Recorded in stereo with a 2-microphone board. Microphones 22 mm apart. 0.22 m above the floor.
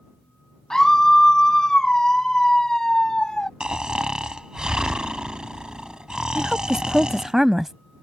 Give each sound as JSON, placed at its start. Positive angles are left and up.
{"t": 0.7, "sound": "a scream", "side_deg": 25}
{"t": 3.6, "sound": "snoring", "side_deg": -40}
{"t": 6.3, "sound": "a woman speaking", "side_deg": -20}